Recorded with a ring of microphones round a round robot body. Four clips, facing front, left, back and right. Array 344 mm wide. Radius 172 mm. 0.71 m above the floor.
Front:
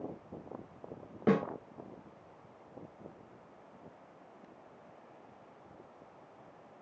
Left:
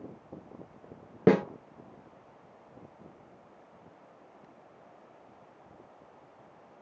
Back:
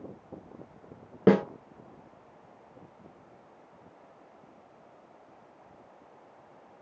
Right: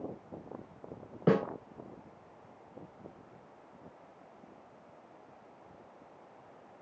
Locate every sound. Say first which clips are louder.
1.3 s a snare drum: left 5 dB, back 7 dB; 130° left, 0.8 m